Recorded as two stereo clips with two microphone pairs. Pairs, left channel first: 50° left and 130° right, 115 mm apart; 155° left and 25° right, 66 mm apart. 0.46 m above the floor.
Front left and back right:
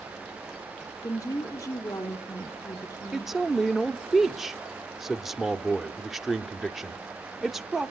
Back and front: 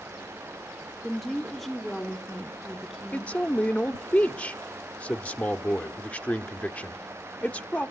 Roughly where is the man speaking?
Behind left.